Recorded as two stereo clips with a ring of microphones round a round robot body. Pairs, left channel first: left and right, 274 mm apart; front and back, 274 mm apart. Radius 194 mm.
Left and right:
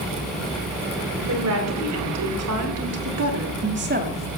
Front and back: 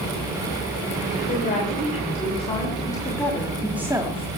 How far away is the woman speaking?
About 3.5 m.